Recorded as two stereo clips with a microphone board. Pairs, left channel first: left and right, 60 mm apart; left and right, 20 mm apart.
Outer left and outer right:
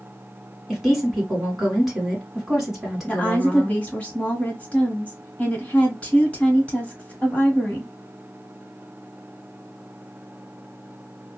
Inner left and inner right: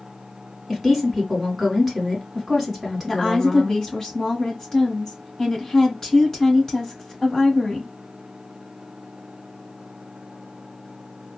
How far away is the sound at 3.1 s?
About 1.3 m.